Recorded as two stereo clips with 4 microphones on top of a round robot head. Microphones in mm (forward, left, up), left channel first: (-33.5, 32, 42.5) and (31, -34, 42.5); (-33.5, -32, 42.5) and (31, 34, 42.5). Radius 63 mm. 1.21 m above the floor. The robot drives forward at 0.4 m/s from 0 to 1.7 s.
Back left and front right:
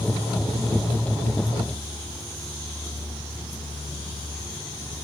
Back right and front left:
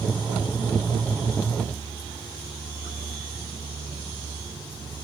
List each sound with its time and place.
Only background noise.